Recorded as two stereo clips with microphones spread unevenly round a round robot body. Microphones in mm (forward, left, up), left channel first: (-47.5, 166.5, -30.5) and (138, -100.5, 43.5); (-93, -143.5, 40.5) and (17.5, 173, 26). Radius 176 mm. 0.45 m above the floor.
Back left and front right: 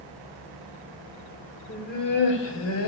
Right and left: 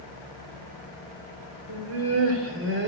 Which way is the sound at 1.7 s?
75° left.